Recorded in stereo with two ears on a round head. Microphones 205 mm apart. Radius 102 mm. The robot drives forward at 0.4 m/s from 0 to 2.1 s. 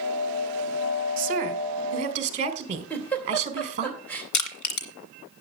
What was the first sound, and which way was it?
A woman speaking, 35° right (ahead or behind).